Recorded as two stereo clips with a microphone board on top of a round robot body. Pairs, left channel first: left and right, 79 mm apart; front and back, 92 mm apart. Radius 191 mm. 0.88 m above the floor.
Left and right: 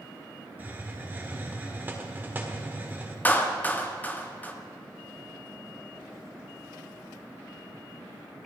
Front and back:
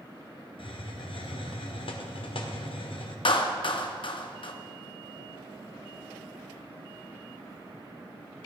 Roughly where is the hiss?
Ahead right.